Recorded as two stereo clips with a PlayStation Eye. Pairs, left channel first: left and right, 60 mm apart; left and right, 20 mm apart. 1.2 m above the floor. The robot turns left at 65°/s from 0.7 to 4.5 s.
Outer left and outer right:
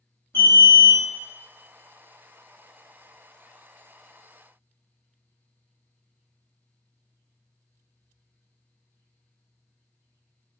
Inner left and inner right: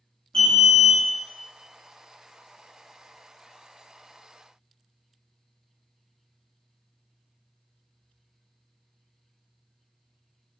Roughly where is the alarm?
Left.